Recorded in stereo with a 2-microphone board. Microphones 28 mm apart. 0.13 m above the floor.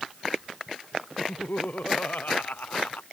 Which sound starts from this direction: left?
Laughter, at 1.2 s.